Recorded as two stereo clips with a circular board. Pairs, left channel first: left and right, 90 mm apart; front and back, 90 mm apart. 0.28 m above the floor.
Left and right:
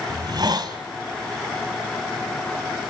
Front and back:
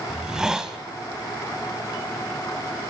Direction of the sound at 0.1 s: 100° right.